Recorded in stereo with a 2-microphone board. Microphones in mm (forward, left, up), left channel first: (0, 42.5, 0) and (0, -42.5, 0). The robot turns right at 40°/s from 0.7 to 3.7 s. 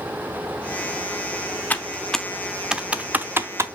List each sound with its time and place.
1.7 s typing on a keyboard: 20° left (ahead or behind), 0.7 m; by 3.7 s 30° right (ahead or behind), 0.7 m